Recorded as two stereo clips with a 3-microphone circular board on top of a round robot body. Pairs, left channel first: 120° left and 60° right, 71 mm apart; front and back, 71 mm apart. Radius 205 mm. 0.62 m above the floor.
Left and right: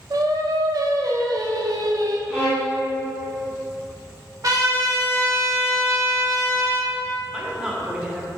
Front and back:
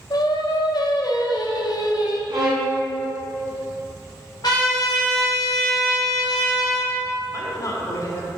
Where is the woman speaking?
15° left, 1.4 m.